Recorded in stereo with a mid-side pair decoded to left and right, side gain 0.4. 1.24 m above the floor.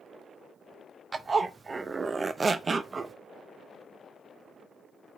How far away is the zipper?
About 0.7 m.